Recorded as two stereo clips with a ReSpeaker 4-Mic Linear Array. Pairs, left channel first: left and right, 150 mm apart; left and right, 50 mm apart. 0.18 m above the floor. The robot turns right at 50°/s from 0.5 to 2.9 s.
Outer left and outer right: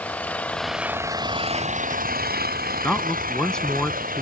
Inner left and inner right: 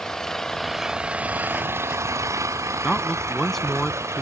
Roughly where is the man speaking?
Centre.